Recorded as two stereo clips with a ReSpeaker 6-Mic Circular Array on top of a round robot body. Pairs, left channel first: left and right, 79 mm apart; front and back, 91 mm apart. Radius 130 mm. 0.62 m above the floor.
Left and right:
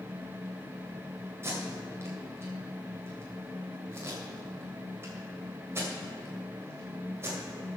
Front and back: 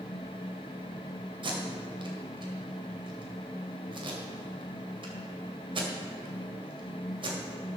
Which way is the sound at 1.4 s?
150° right.